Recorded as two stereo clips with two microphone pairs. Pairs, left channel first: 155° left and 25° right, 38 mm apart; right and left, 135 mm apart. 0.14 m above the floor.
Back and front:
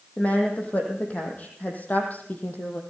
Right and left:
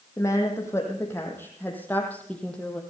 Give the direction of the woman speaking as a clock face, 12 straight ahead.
5 o'clock.